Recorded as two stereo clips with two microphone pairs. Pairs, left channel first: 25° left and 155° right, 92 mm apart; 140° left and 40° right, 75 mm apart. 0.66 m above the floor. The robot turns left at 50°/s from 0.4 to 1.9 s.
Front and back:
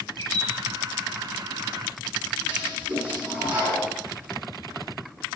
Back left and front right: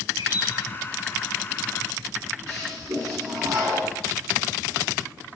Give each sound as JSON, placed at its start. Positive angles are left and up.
{"t": 0.2, "sound": "a bird", "azimuth_deg": -25, "distance_m": 10.0}
{"t": 2.5, "sound": "a toilet flushing", "azimuth_deg": -85, "distance_m": 8.0}